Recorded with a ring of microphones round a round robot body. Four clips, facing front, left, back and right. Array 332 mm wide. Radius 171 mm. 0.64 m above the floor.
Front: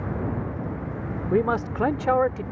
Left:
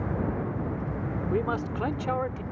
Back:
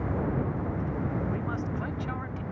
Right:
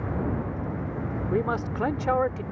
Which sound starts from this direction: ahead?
A man speaking, at 1.3 s.